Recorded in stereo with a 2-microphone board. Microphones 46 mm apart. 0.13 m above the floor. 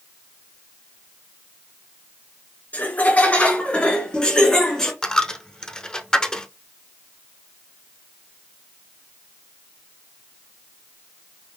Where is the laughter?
35° left (ahead or behind), 2.0 m; by 4.9 s 10° left (ahead or behind), 1.9 m.